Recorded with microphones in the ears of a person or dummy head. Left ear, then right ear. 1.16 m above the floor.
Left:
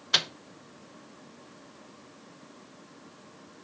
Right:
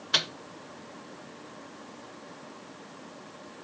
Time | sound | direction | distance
0.1 | a microwave | 15° left (ahead or behind) | 0.6 m